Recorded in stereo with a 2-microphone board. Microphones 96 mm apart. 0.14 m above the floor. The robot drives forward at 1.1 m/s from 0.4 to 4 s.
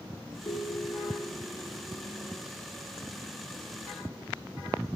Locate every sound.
0.5 s a ringtone: 45° left (ahead or behind), 4 m; by 1.4 s 60° left (ahead or behind), 3 m